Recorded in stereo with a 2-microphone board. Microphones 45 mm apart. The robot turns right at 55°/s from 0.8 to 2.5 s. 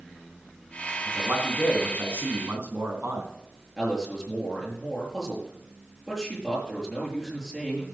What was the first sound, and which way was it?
A man speaking, 135° right.